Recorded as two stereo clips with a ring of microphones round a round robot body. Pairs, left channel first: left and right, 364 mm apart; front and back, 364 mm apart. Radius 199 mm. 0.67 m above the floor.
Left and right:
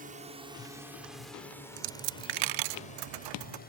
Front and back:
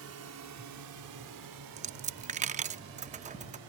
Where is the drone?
150° right; by 3.7 s 150° left.